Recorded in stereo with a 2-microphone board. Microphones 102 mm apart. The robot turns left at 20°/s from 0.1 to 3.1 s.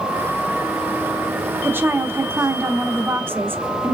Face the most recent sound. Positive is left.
turn(degrees=-20)  # may be behind; listen again after turning